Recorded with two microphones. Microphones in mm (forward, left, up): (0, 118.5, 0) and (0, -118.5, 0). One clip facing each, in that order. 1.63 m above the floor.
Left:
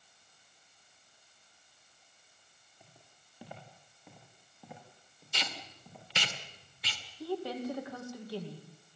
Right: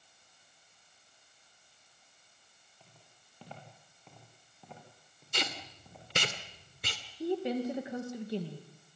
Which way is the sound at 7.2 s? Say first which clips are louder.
Right 4 dB; 20° right (ahead or behind).